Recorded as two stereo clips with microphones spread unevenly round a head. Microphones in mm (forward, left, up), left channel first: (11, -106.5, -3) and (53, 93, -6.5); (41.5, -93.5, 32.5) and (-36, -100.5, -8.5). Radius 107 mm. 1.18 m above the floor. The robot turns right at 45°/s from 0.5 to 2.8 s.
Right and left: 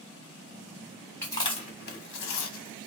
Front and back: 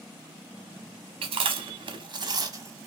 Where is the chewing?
175° left, 0.8 m; by 2.9 s 110° right, 0.8 m.